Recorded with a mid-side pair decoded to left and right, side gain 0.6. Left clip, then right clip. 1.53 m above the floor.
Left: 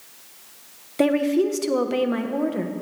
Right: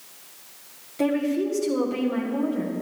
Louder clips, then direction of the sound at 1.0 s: Left 4 dB; 50° left.